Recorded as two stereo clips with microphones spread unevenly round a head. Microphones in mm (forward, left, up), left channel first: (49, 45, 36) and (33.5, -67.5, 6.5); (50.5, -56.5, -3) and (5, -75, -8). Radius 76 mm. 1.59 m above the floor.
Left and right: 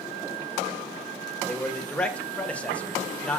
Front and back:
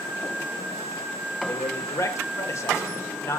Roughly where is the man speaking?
Ahead.